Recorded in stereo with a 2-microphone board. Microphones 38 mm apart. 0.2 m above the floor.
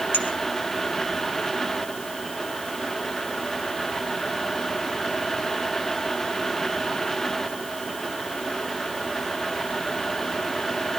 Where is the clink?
75° left (ahead or behind), 4.5 m.